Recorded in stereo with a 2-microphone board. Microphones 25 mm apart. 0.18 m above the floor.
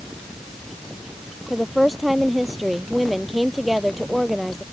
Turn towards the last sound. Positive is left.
turn(degrees=-5)  # may be behind; listen again after turning